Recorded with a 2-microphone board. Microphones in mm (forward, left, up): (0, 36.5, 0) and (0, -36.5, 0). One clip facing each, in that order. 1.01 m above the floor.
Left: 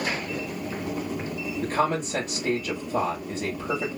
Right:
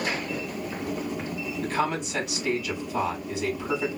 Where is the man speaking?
35° left (ahead or behind), 2.5 m.